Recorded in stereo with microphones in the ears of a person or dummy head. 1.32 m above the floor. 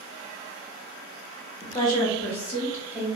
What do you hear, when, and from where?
1.6 s a woman speaking: 30° left (ahead or behind), 0.8 m; by 3.1 s 5° right (ahead or behind), 1.4 m